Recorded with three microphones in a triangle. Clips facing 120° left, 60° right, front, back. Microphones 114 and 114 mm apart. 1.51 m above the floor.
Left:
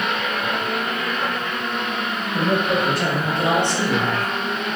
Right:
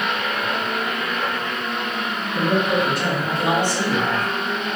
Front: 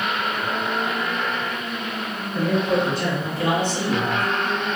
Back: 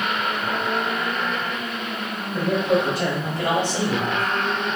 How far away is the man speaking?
About 1.7 m.